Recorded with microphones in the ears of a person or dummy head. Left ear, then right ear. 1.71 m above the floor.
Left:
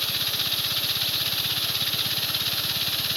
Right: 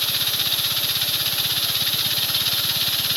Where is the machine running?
5° right (ahead or behind), 1.0 m.